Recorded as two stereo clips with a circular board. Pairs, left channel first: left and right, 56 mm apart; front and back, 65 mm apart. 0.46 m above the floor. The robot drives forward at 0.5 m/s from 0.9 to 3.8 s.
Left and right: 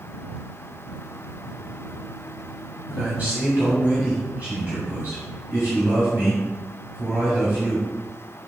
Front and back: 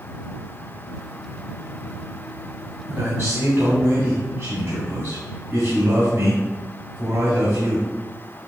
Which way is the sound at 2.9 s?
145° right.